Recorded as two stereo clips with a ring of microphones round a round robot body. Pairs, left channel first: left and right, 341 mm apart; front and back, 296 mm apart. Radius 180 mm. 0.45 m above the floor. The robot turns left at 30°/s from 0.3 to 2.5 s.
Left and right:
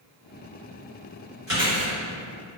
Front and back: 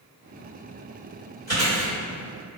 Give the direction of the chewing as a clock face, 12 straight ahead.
2 o'clock.